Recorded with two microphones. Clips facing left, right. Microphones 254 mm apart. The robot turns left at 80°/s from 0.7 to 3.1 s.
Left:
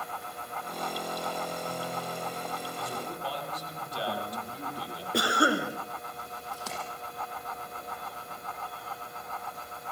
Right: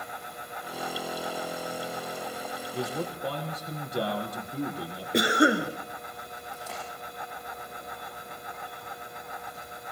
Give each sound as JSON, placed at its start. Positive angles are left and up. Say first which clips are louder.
{"t": 2.7, "sound": "a man speaking", "louder": "right 6 dB", "side_deg": -75, "distance_m": 7.5}
{"t": 5.1, "sound": "a cough", "louder": "right 4 dB", "side_deg": -20, "distance_m": 3.0}
{"t": 6.5, "sound": "a splash", "louder": "left 1 dB", "side_deg": 80, "distance_m": 7.0}